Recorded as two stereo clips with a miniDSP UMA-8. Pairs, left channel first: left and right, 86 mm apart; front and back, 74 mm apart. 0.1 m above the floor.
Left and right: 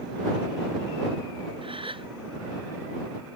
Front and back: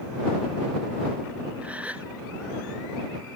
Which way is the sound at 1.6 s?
110° right.